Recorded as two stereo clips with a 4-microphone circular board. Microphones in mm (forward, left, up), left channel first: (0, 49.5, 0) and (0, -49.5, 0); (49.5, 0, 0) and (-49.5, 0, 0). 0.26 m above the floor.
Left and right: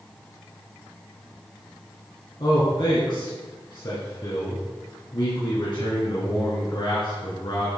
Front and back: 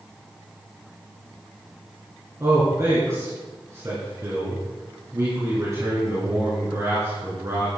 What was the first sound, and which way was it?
A man speaking, 125° left.